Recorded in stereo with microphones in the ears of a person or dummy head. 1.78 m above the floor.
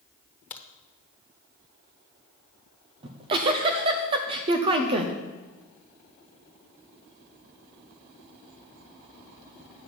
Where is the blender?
No blender in this recording.